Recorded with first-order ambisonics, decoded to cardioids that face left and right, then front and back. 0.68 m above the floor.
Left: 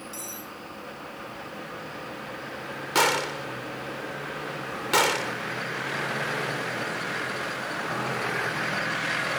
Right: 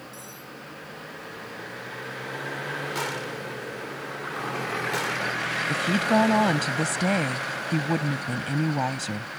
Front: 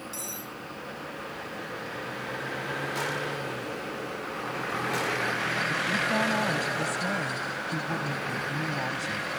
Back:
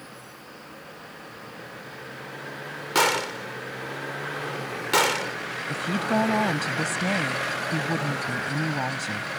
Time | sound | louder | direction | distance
0.1 | cutlery clinking | left 3 dB, front 6 dB | 30° left | ?
3.0 | a gunshot | left 7 dB, back 8 dB | 140° left | ?
5.7 | a woman speaking | right 8 dB, even | 110° right | ?